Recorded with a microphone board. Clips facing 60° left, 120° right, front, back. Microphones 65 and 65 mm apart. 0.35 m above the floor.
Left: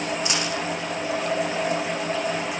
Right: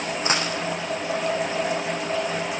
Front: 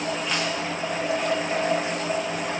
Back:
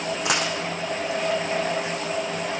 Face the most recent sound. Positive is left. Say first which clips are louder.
# right 2 dB, back 2 dB
turn(degrees=-170)